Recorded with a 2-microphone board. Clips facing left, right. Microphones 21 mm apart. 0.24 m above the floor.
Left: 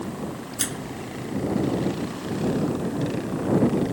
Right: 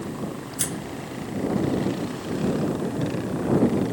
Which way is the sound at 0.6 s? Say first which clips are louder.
Left 1 dB; 20° left (ahead or behind).